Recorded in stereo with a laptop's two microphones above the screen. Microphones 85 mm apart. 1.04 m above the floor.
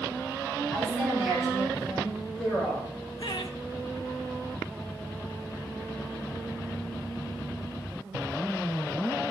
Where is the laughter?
85° left, 2.5 m.